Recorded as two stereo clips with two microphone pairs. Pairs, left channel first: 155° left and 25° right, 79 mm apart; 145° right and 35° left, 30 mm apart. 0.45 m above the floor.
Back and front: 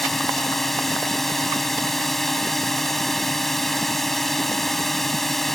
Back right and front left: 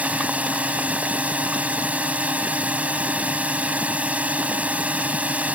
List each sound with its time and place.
0.0 s a drone: 65° left